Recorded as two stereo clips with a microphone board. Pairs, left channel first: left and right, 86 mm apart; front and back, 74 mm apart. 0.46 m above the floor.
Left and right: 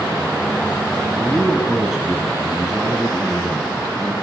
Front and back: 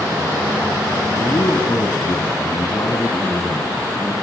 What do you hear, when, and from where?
1.2 s a man speaking: 5° right, 4 m